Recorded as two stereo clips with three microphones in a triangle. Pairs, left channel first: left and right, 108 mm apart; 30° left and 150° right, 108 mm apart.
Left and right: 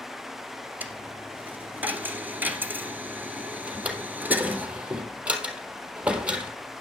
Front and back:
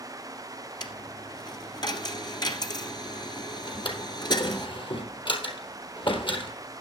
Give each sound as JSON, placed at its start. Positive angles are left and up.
{"t": 0.8, "sound": "a dropped coin", "azimuth_deg": -15, "distance_m": 1.8}
{"t": 3.7, "sound": "a drawer", "azimuth_deg": -10, "distance_m": 3.0}